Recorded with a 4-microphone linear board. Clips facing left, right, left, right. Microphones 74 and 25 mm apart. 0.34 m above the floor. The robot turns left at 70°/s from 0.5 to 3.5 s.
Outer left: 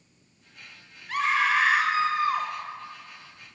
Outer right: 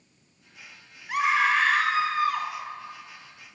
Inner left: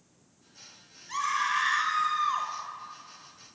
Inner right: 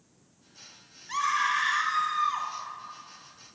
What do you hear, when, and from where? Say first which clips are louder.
1.1 s a scream: outer right 1 dB, inner right 2 dB; 150° right, 1.2 m; by 2.5 s 110° left, 1.2 m